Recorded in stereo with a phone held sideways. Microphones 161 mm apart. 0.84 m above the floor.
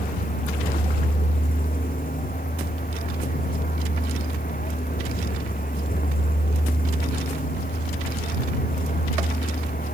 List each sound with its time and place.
0.0 s a vehicle: 60° left (ahead or behind)